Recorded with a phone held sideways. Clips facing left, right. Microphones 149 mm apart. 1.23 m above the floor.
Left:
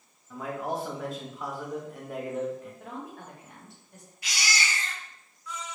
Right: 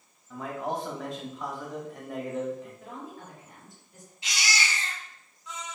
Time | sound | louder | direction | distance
0.3 | a man speaking | even | 5° left (ahead or behind) | 1.0 m
2.8 | a woman speaking | left 1 dB | 75° left (ahead or behind) | 1.4 m
4.2 | a baby crying | even | 20° right (ahead or behind) | 1.0 m